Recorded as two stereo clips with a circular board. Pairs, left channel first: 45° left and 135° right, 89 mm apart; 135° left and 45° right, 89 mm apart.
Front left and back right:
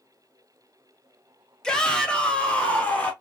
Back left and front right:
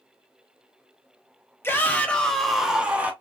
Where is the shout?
115° left, 1.0 m; by 3.1 s 5° right, 1.0 m.